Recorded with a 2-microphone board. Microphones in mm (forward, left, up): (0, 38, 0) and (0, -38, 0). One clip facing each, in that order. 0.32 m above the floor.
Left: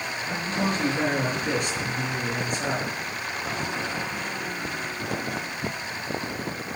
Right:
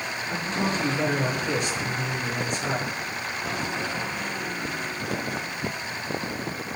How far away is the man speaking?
About 6 m.